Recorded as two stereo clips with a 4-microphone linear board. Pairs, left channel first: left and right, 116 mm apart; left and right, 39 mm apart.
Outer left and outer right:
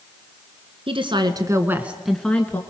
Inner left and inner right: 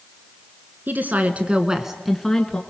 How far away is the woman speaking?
About 2.0 m.